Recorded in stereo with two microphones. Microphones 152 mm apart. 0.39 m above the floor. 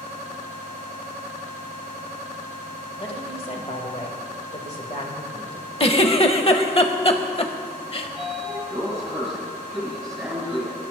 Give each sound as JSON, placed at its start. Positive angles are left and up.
{"t": 3.0, "sound": "a woman speaking", "side_deg": 40, "distance_m": 1.5}
{"t": 5.8, "sound": "a giggle", "side_deg": 40, "distance_m": 0.6}
{"t": 8.0, "sound": "a sliding door", "side_deg": 0, "distance_m": 2.5}